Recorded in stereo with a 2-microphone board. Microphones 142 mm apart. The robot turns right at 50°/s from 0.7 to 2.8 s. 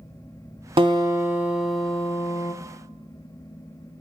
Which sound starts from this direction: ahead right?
A guitar, at 0.8 s.